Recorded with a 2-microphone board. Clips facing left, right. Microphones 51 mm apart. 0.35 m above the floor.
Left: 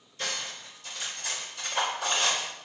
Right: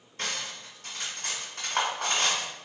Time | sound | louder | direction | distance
0.2 | cutlery clinking | even | 55° right (ahead or behind) | 1.5 m